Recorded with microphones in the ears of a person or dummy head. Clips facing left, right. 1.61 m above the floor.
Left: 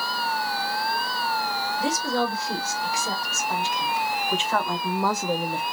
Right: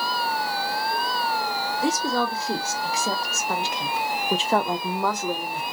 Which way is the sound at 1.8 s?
75° right (ahead or behind).